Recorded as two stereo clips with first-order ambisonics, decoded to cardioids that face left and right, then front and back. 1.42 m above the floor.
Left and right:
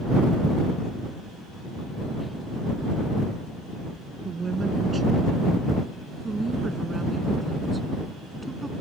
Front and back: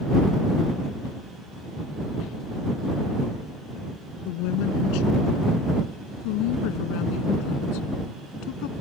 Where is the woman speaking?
20° right; by 8.7 s 10° right.